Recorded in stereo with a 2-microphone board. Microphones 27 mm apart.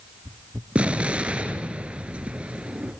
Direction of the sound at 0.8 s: 50° right (ahead or behind).